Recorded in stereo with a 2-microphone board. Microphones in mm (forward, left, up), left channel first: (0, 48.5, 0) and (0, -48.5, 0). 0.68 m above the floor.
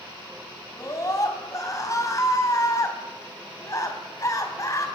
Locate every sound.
0.8 s a scream: 35° left (ahead or behind), 4.5 m